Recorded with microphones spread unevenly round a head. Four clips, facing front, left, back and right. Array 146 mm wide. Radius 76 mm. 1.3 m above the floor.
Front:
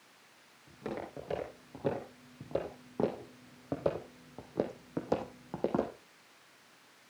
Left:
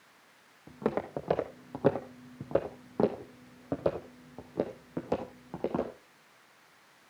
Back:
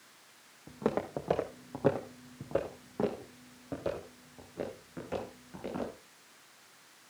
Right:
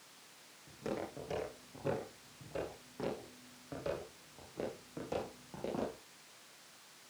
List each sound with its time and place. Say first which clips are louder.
0.7 s footsteps: left 9 dB, back 8 dB; 135° left, 3 m; by 5.9 s 30° left, 3.5 m